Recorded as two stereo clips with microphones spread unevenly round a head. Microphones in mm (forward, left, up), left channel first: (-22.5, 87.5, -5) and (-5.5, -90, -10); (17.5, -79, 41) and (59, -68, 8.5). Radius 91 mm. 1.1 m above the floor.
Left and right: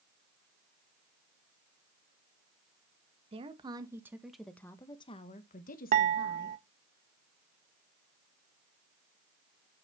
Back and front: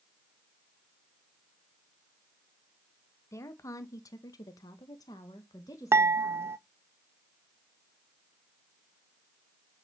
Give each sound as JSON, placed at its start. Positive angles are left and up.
{"t": 3.3, "sound": "a woman speaking", "azimuth_deg": -145, "distance_m": 1.2}
{"t": 5.9, "sound": "dishes clattering", "azimuth_deg": -35, "distance_m": 0.5}